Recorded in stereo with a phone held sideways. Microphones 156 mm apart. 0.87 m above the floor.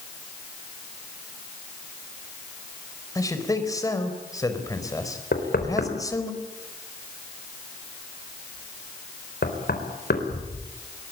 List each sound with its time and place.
3.1 s a man speaking: 20° left (ahead or behind), 4 m
5.3 s knocking: 80° left, 4 m